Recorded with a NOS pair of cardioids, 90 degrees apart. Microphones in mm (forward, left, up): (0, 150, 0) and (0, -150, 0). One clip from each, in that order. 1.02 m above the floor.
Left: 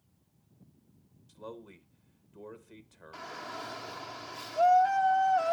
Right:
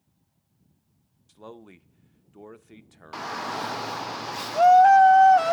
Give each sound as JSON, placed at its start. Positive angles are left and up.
{"t": 1.3, "sound": "a man speaking", "azimuth_deg": -20, "distance_m": 0.7}
{"t": 3.1, "sound": "a shout", "azimuth_deg": -70, "distance_m": 0.6}